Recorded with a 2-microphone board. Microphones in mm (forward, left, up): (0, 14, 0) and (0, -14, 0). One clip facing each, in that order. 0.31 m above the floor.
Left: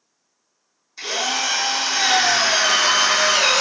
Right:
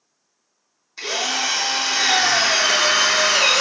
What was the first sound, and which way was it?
A drill, 15° right (ahead or behind).